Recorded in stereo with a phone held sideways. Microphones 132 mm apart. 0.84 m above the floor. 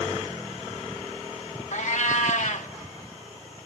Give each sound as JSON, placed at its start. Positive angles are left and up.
{"t": 1.7, "sound": "a cat meowing", "side_deg": 65, "distance_m": 0.5}